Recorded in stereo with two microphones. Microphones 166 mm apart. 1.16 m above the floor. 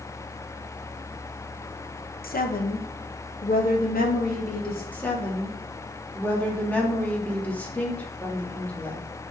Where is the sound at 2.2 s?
65° left (ahead or behind), 0.9 m.